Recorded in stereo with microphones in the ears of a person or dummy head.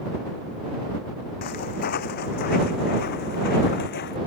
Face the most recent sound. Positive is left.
turn(degrees=55)  # may be behind; listen again after turning